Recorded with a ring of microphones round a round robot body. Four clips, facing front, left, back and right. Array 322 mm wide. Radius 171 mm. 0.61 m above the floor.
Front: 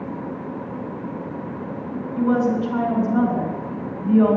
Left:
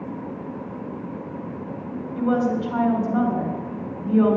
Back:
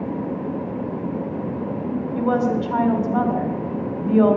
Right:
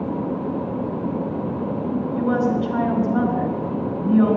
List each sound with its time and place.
2.2 s a woman speaking: 175° right, 2.5 m